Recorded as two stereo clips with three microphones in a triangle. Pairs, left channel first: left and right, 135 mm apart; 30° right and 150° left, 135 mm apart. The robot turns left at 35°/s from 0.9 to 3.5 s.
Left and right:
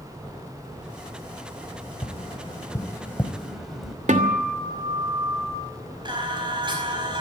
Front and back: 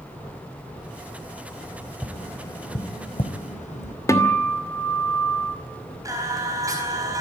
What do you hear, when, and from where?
2.0 s tapping: 50° left, 2 m; by 4.0 s straight ahead, 2 m
4.1 s a guitar: 95° right, 2.5 m
6.0 s singing: 145° right, 4.5 m